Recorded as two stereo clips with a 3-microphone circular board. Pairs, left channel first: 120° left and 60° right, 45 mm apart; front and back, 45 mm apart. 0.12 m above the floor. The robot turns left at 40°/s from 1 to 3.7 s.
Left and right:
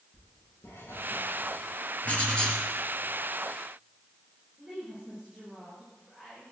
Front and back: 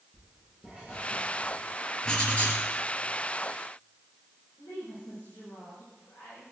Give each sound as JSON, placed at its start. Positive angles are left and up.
{"t": 0.1, "sound": "writing", "azimuth_deg": 125, "distance_m": 9.0}
{"t": 2.0, "sound": "writing", "azimuth_deg": 65, "distance_m": 3.0}
{"t": 4.6, "sound": "a woman speaking", "azimuth_deg": 15, "distance_m": 9.5}